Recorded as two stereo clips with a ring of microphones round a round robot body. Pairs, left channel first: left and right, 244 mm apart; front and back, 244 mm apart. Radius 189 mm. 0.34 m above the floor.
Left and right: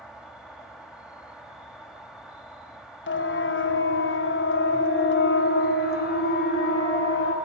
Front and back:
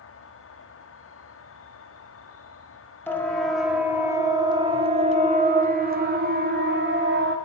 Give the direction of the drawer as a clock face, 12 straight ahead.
I don't hear a drawer.